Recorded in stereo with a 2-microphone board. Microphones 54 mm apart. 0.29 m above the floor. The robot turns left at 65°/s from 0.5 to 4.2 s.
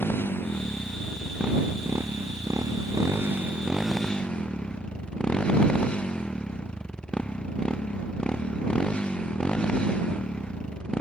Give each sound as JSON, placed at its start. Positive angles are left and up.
{"t": 0.0, "sound": "a motorcycle", "azimuth_deg": 45}